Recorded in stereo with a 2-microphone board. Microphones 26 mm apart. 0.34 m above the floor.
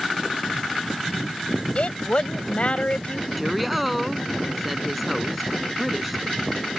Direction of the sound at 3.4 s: 5° right (ahead or behind).